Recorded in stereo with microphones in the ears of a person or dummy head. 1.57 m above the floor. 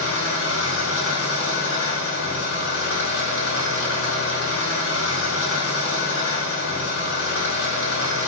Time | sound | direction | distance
0.0 | an engine running | 65° left (ahead or behind) | 1.6 m